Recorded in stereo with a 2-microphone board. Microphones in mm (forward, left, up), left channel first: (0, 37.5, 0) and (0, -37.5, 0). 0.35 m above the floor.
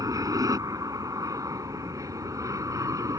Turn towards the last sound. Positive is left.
turn(degrees=-50)  # may be behind; listen again after turning